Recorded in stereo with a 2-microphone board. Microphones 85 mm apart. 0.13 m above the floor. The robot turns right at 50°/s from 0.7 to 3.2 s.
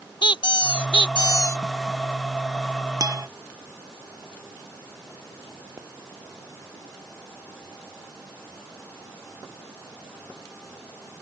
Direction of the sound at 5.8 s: 35° right (ahead or behind).